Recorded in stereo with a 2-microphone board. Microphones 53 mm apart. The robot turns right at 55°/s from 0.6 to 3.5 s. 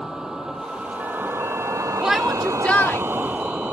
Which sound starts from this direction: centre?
A vehicle, at 0.0 s.